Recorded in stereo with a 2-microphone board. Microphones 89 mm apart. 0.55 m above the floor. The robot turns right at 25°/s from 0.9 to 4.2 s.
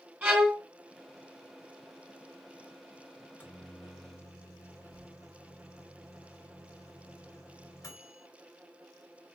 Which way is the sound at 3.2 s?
20° left (ahead or behind).